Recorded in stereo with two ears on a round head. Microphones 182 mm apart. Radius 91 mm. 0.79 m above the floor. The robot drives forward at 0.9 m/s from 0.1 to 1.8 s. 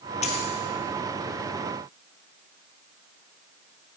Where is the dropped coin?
35° left (ahead or behind), 2.5 m; by 0.5 s 30° left (ahead or behind), 2.5 m.